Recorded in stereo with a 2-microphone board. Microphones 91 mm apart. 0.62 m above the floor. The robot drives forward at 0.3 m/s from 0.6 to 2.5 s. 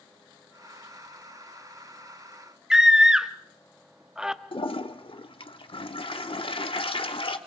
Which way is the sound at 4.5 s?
70° left (ahead or behind).